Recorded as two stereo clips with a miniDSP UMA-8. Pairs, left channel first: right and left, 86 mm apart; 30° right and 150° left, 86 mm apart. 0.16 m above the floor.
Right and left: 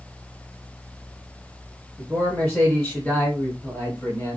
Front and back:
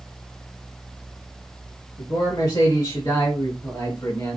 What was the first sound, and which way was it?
A man speaking, straight ahead.